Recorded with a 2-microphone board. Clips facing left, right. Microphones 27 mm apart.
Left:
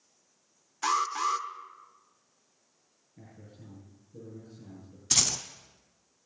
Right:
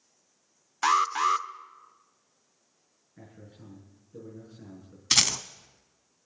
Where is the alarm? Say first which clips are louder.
Right 4 dB; 25° right (ahead or behind), 0.6 m.